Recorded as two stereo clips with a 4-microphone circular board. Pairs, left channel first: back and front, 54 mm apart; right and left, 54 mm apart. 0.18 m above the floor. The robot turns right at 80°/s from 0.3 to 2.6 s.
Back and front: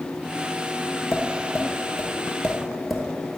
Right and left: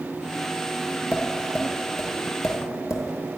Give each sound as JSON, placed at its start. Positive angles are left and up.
{"t": 1.1, "sound": "tapping", "azimuth_deg": 150, "distance_m": 1.1}